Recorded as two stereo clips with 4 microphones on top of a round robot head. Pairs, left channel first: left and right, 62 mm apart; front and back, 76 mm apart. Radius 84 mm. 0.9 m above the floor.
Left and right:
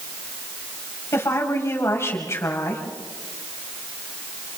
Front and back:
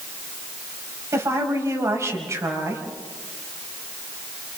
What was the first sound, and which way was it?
A woman speaking, 130° left.